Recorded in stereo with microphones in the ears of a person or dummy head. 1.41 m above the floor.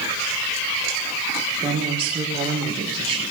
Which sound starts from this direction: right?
A woman speaking, at 1.6 s.